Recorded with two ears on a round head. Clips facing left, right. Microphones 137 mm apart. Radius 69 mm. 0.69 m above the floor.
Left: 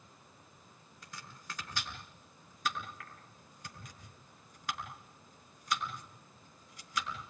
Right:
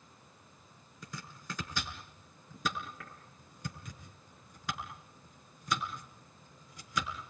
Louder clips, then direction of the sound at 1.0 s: Right 4 dB; 85° right.